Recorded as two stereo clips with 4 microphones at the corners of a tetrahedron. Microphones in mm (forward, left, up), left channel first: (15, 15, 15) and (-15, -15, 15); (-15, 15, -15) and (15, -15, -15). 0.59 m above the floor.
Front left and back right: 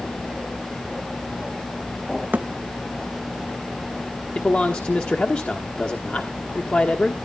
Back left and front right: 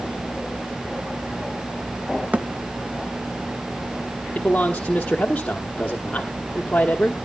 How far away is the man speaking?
About 1.2 m.